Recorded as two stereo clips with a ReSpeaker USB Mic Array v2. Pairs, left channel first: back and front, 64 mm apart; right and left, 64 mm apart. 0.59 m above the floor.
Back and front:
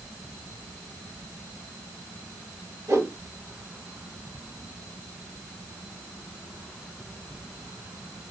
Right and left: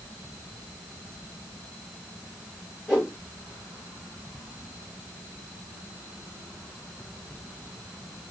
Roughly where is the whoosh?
Ahead.